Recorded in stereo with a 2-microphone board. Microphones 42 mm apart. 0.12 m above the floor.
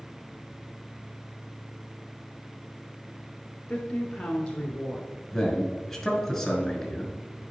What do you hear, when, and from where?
3.7 s a woman speaking: 15° left (ahead or behind), 1.1 m
5.3 s a man speaking: 5° left (ahead or behind), 1.6 m